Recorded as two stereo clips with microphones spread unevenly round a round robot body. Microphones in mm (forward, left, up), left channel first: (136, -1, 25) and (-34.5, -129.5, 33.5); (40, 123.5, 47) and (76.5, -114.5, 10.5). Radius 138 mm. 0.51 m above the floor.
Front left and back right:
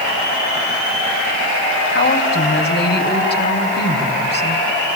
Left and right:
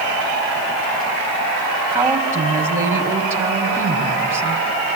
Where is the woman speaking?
Straight ahead, 4 m.